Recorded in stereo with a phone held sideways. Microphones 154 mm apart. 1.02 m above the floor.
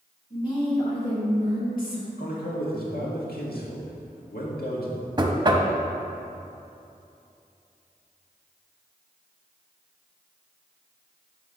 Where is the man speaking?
80° left, 1.7 m.